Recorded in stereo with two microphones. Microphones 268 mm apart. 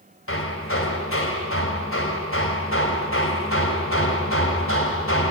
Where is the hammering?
55° left (ahead or behind), 3 m.